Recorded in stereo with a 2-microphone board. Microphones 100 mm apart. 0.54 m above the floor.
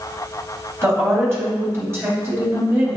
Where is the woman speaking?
25° right (ahead or behind), 3 m.